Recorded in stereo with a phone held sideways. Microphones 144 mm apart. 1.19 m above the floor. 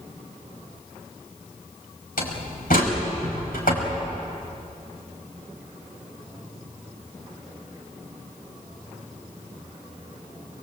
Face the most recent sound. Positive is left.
turn(degrees=90)